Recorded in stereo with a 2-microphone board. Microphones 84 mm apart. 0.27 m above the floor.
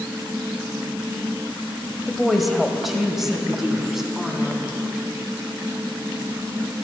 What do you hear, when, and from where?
2.1 s a woman speaking: centre (ahead or behind), 1.2 m; by 4.8 s 5° right (ahead or behind), 2.5 m